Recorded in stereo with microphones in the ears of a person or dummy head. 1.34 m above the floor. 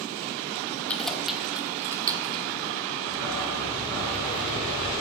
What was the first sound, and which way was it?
Keys jangling, 10° left (ahead or behind).